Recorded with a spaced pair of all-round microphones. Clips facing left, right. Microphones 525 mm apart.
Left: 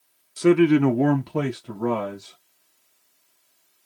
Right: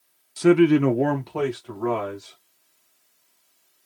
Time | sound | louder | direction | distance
0.4 | a man speaking | even | 20° right (ahead or behind) | 0.7 m